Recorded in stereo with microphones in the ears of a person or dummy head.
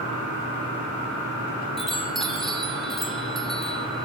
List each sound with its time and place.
1.8 s a chime: centre (ahead or behind), 2.5 m